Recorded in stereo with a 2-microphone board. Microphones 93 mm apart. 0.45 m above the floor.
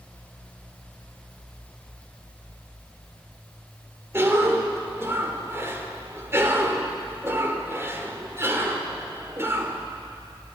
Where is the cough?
30° right (ahead or behind), 1.6 m.